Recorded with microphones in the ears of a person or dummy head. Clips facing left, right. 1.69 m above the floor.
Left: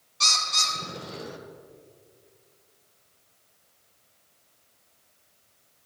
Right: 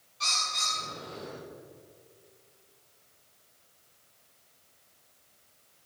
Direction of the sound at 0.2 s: 65° left (ahead or behind).